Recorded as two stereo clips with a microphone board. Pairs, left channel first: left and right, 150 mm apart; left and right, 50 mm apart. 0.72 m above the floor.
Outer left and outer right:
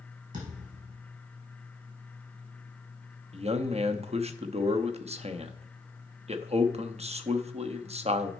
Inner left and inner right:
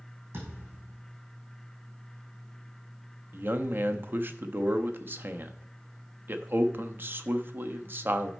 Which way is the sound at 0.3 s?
55° right (ahead or behind).